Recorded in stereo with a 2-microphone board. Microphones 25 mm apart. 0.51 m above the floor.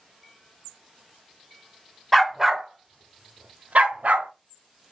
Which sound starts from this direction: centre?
A dog barking, at 2.1 s.